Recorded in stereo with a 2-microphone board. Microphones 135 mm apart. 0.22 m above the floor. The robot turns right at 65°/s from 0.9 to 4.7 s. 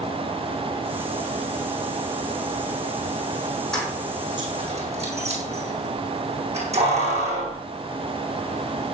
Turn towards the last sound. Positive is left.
turn(degrees=-60)  # may be behind; listen again after turning